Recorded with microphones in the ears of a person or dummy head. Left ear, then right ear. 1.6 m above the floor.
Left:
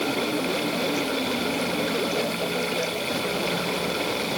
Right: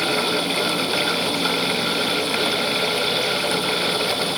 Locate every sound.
Only background noise.